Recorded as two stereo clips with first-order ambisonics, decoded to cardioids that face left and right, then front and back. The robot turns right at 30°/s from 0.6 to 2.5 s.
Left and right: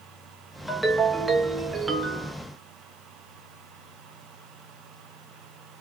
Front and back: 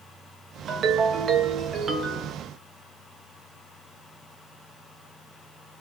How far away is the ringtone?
About 0.6 m.